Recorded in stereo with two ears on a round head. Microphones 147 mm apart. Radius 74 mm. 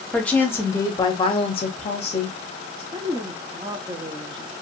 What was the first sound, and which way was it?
A woman speaking, 5° left (ahead or behind).